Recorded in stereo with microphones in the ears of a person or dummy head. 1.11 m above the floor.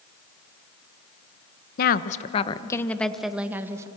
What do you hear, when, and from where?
1.8 s a woman speaking: 50° left (ahead or behind), 1.2 m; by 3.9 s 15° right (ahead or behind), 1.6 m